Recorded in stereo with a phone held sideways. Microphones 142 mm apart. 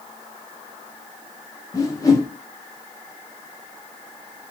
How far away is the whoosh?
About 0.5 m.